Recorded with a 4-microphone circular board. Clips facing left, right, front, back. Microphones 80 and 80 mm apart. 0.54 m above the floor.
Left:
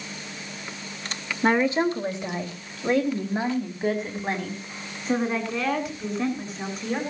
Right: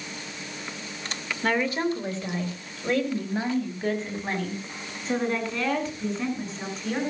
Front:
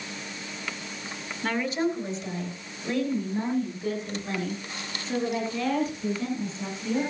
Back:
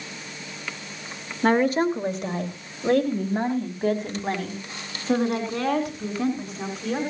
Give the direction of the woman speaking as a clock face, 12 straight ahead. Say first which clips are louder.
Left 4 dB, back 7 dB; 7 o'clock.